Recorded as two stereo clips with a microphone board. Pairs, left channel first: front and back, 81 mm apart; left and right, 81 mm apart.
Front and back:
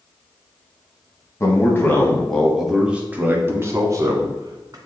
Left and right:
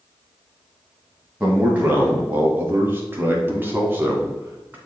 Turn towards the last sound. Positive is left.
turn(degrees=-155)